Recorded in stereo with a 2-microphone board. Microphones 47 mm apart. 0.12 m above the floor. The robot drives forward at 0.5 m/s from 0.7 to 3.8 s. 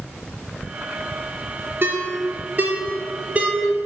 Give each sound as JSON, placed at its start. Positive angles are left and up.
{"t": 1.8, "sound": "a ringtone", "side_deg": -50, "distance_m": 0.7}